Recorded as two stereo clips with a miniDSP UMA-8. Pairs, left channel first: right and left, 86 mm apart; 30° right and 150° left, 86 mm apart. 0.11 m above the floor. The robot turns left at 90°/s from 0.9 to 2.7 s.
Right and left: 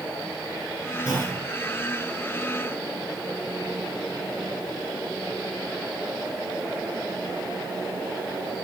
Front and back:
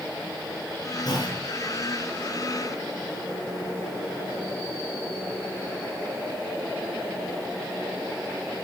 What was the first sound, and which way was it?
A clunk, 15° left.